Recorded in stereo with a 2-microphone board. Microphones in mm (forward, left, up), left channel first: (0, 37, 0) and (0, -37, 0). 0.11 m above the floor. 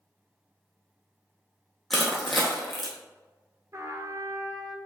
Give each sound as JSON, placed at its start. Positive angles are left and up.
{"t": 1.9, "sound": "crushing", "side_deg": 0, "distance_m": 1.4}
{"t": 3.7, "sound": "a trumpet", "side_deg": -45, "distance_m": 0.6}